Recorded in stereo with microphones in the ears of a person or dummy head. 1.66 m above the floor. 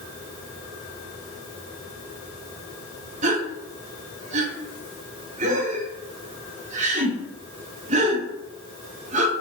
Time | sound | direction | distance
3.2 | a gasp | 35° right (ahead or behind) | 0.6 m